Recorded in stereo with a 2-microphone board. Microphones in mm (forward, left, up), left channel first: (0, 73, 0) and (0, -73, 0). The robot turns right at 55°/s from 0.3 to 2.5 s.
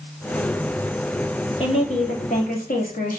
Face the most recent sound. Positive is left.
turn(degrees=90)